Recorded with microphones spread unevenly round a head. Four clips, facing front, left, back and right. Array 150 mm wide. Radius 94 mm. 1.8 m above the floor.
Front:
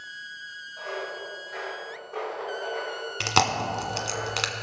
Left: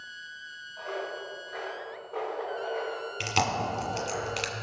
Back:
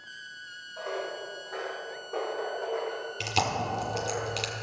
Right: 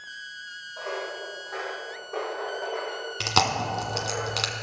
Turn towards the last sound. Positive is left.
turn(degrees=-45)